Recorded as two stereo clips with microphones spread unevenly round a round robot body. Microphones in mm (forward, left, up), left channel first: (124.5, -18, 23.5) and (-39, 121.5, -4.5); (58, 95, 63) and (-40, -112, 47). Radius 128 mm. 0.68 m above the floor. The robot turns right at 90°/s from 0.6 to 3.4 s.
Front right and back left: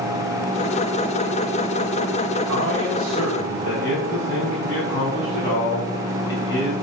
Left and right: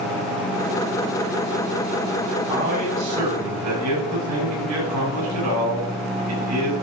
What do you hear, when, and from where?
2.5 s a man speaking: 165° left, 5.5 m; by 6.7 s 115° right, 5.5 m